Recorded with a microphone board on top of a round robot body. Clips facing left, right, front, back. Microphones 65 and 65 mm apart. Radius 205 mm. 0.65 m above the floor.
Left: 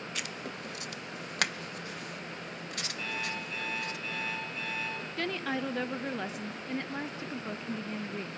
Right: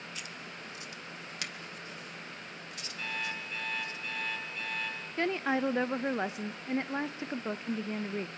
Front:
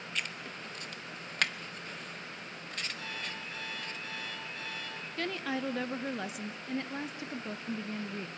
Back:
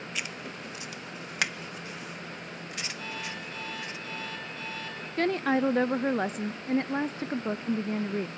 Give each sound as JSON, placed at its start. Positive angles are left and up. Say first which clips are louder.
{"t": 0.1, "sound": "writing", "louder": "left 5 dB, back 1 dB", "azimuth_deg": 100, "distance_m": 0.7}
{"t": 3.0, "sound": "an alarm clock", "louder": "right 1 dB, back 3 dB", "azimuth_deg": 0, "distance_m": 7.0}
{"t": 5.2, "sound": "a woman speaking", "louder": "right 4 dB, back 9 dB", "azimuth_deg": -145, "distance_m": 0.6}